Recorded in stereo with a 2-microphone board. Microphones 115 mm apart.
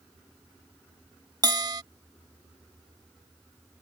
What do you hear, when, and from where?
1.4 s a bell: 35° right (ahead or behind)